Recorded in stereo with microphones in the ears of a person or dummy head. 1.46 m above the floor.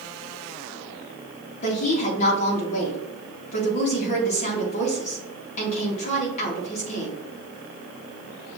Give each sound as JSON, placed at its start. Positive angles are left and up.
{"t": 1.6, "sound": "a woman speaking", "side_deg": 45, "distance_m": 1.7}